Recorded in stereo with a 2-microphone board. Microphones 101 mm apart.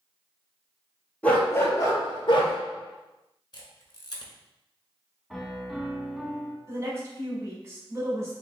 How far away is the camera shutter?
About 0.9 m.